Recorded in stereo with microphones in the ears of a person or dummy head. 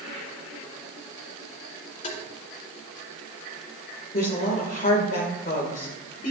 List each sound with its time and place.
2.0 s tapping: 45° left (ahead or behind), 3.5 m
4.1 s a woman speaking: 50° left (ahead or behind), 2 m